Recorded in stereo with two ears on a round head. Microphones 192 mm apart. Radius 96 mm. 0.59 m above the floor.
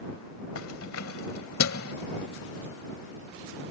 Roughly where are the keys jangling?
Left.